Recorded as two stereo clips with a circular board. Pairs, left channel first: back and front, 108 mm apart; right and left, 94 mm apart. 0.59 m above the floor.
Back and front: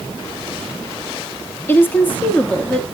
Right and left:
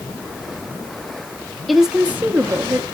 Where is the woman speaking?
Straight behind, 0.8 m; by 2.8 s 105° left, 1.1 m.